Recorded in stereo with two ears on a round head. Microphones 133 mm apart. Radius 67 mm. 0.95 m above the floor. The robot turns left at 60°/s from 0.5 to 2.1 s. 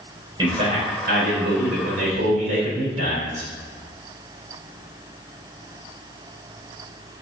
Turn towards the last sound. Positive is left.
turn(degrees=-125)